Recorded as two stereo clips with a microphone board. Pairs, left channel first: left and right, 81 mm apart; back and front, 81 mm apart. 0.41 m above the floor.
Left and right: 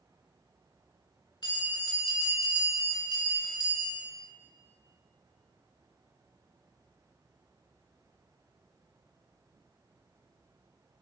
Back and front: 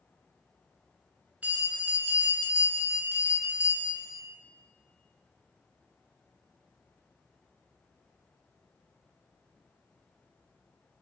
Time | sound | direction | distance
1.4 | a bell | 70° left | 0.7 m